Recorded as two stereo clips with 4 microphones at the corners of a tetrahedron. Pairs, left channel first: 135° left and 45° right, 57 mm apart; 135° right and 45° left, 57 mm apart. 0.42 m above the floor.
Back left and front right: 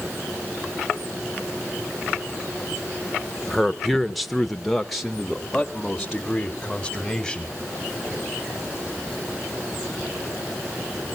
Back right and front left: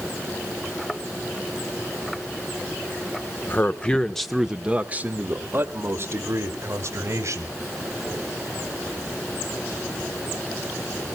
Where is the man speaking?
135° right, 1.0 m; by 7.6 s 50° left, 2.5 m.